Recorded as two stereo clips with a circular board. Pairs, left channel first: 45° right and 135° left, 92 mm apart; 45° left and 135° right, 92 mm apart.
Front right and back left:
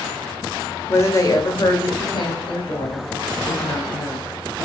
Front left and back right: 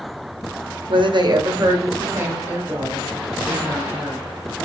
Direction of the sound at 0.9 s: 110° right.